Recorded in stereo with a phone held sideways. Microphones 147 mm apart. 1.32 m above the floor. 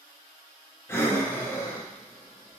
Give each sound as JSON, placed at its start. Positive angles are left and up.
{"t": 0.9, "sound": "breathing", "side_deg": 15, "distance_m": 0.8}